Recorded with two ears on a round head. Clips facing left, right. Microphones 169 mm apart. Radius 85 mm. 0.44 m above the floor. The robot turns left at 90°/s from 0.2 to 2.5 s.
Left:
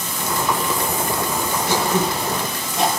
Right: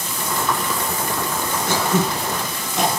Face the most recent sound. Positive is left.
turn(degrees=-60)  # may be behind; listen again after turning